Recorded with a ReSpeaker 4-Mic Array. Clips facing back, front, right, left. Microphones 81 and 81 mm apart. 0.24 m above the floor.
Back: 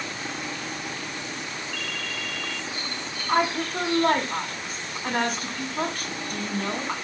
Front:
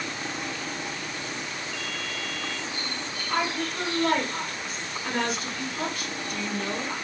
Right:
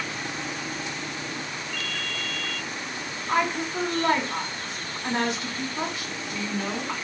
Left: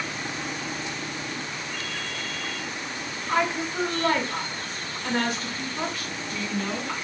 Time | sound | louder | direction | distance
1.7 | a ringtone | back 1 dB, even | 70° left | 0.7 m
3.3 | a woman speaking | back 5 dB, even | 155° right | 1.7 m